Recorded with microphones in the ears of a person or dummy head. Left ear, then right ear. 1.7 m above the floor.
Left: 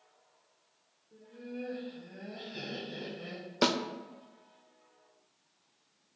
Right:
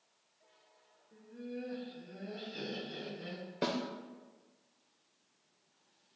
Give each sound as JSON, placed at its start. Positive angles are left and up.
{"t": 1.1, "sound": "laughter", "side_deg": 0, "distance_m": 1.1}
{"t": 3.6, "sound": "a snare drum", "side_deg": 40, "distance_m": 0.6}